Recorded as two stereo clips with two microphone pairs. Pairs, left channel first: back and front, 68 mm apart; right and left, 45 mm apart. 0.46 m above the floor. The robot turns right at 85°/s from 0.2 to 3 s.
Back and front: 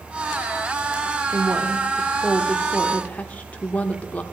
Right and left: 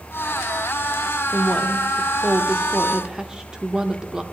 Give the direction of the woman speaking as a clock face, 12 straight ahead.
12 o'clock.